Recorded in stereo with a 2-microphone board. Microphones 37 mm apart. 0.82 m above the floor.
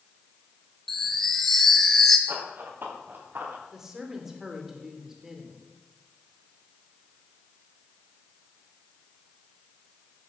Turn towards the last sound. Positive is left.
turn(degrees=-10)  # may be behind; listen again after turning